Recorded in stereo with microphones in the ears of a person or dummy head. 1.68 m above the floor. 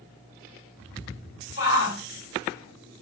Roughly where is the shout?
Left.